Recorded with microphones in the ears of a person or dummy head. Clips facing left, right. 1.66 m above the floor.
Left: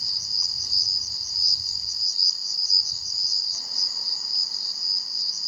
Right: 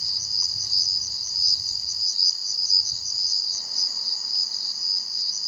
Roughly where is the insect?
Centre.